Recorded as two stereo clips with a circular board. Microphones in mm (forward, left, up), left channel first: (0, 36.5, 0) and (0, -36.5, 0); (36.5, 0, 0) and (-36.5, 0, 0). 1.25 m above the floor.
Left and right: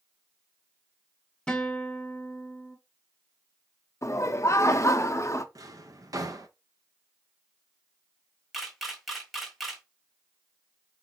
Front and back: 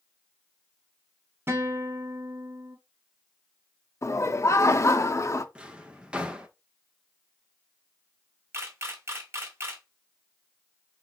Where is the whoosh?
I don't hear a whoosh.